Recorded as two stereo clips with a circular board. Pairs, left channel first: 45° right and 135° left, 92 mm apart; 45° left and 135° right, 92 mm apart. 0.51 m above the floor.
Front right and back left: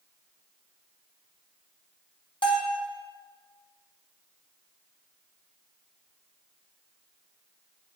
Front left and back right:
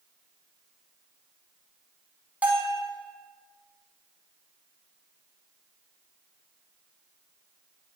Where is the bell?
60° right, 1.1 m.